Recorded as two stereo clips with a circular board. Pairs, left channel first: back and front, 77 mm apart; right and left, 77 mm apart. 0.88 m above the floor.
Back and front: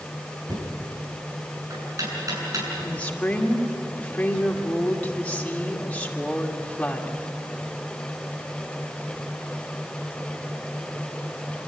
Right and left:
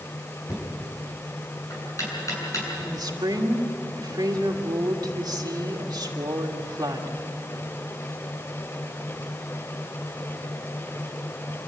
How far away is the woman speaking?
About 2.5 m.